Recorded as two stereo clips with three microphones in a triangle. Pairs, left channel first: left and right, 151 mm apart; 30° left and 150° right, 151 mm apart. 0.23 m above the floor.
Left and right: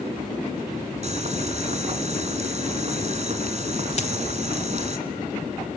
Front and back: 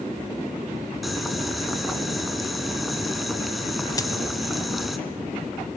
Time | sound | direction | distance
1.0 | boiling | 60° right | 2 m
4.0 | a dropped coin | 85° left | 0.5 m